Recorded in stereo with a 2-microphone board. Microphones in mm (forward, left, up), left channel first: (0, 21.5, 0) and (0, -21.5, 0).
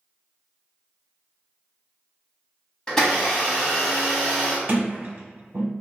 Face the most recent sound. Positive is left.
turn(degrees=-55)  # may be behind; listen again after turning